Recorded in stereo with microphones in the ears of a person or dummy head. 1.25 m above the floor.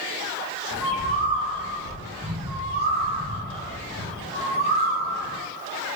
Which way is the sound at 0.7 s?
45° right (ahead or behind).